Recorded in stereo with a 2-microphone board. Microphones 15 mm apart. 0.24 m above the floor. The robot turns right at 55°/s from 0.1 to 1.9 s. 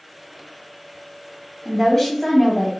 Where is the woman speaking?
25° left (ahead or behind), 1.1 m; by 2.7 s 30° left (ahead or behind), 1.1 m.